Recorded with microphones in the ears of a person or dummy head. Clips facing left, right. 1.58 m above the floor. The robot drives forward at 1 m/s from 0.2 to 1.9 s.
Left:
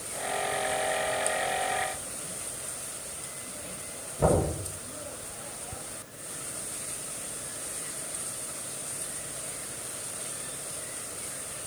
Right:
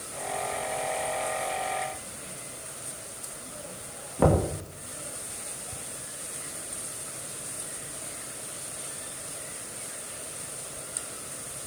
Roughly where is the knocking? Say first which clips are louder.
Right 2 dB; right.